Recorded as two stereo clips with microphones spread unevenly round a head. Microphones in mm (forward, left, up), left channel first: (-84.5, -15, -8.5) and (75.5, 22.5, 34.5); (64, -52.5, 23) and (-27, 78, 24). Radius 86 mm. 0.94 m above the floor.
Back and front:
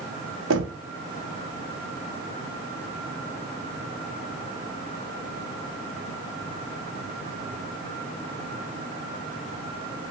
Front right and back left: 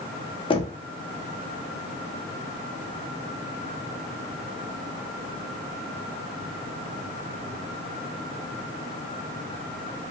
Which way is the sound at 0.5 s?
5° left.